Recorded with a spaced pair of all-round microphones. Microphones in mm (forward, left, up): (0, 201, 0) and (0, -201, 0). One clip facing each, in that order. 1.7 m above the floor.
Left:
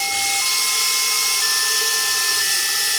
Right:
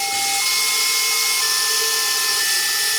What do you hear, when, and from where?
0.0 s running water: 45° left (ahead or behind), 9 m